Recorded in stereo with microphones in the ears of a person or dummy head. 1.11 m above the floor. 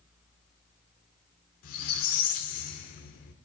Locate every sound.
1.6 s a squeak: 55° left (ahead or behind), 1.4 m